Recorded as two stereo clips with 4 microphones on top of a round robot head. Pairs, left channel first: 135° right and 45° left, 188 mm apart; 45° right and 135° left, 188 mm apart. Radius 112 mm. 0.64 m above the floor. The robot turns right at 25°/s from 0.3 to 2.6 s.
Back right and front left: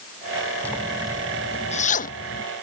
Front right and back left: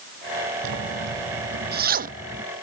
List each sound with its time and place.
0.6 s a zipper: 145° left; by 2.4 s 170° right